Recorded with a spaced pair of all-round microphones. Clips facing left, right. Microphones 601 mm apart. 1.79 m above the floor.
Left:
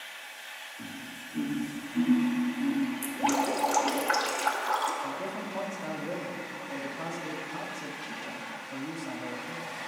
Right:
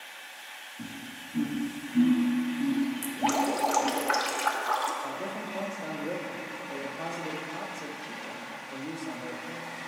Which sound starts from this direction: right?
Laughter, at 0.8 s.